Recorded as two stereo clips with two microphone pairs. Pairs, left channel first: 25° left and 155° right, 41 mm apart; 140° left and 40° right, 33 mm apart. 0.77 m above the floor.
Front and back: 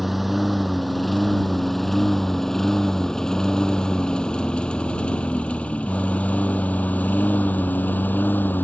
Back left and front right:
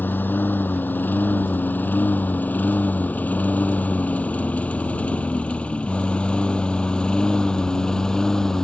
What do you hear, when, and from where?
0.0 s a lawn mower: 120° left; by 8.7 s 65° left